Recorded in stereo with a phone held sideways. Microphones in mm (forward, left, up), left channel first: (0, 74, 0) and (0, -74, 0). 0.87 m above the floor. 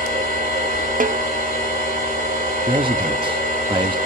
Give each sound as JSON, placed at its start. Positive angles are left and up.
{"t": 0.0, "sound": "a machine running", "side_deg": -70, "distance_m": 6.0}
{"t": 1.0, "sound": "a snare drum", "side_deg": -65, "distance_m": 0.8}
{"t": 2.7, "sound": "a man speaking", "side_deg": -35, "distance_m": 1.1}